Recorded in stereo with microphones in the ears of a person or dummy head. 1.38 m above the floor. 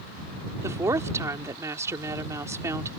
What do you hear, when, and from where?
0.6 s a woman speaking: 15° right (ahead or behind)